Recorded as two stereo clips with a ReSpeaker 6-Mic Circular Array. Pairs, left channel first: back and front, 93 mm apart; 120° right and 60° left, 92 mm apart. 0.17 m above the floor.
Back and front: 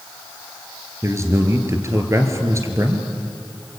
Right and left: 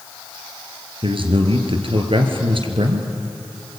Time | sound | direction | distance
1.0 | a man speaking | 55° left | 3 m